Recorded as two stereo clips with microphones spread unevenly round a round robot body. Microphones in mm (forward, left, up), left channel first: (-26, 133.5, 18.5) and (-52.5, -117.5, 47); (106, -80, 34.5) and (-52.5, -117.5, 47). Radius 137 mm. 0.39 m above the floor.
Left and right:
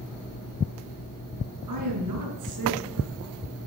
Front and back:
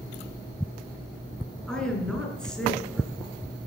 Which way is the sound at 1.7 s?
70° right.